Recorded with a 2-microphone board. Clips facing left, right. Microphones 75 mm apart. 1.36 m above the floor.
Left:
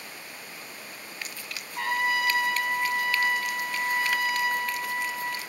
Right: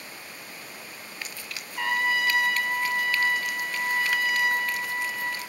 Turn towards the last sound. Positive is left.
turn(degrees=70)  # may be behind; listen again after turning